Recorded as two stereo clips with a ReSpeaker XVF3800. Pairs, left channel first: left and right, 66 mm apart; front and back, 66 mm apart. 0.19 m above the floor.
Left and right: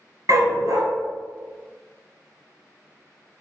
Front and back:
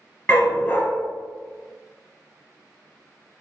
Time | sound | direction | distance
0.3 | a dog barking | 65° right | 1.0 m